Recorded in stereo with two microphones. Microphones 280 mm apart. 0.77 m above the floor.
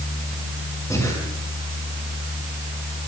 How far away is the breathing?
About 6.5 m.